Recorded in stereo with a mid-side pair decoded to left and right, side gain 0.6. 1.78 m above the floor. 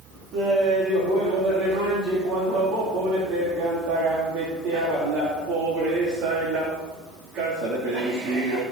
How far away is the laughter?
About 3.5 m.